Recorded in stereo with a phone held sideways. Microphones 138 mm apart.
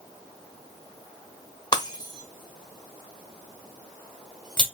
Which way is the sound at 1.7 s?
30° left (ahead or behind).